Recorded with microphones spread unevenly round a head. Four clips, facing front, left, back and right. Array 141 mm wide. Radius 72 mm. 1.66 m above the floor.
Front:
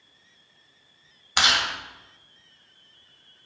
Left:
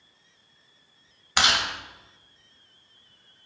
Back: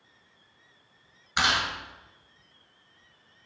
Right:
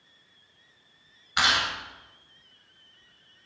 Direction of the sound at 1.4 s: 75° left.